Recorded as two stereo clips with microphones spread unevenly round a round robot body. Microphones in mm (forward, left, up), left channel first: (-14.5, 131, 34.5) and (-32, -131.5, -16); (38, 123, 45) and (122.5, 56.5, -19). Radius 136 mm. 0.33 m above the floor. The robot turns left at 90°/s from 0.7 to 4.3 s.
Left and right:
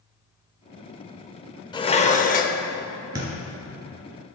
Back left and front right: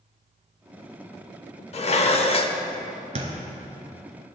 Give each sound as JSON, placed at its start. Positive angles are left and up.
{"t": 1.7, "sound": "dishes clattering", "azimuth_deg": 160, "distance_m": 0.6}
{"t": 3.1, "sound": "a thud", "azimuth_deg": -15, "distance_m": 1.7}